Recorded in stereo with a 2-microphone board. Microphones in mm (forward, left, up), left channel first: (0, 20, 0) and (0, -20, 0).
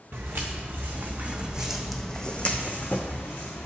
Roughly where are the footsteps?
Right.